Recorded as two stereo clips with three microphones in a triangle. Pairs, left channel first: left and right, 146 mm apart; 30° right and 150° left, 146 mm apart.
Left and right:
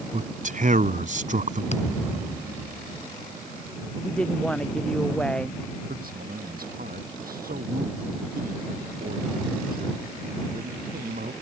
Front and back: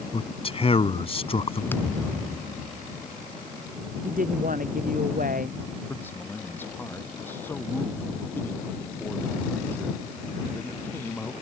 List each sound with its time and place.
0.1 s a man speaking: 75° right
1.7 s a thud: 45° left
4.0 s a woman speaking: 175° left
5.9 s a man speaking: 105° right